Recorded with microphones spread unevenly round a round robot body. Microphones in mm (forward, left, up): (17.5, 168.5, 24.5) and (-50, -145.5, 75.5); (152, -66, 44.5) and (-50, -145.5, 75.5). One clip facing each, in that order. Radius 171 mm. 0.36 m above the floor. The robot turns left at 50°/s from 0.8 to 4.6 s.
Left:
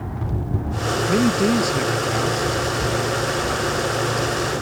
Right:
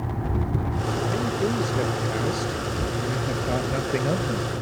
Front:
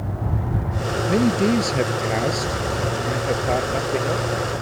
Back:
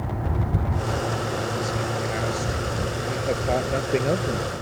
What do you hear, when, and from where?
1.1 s a man speaking: 45° left; by 4.5 s 125° right